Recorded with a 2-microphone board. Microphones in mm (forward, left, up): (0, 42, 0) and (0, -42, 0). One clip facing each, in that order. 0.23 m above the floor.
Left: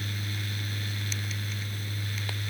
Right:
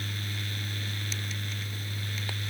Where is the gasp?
No gasp in this recording.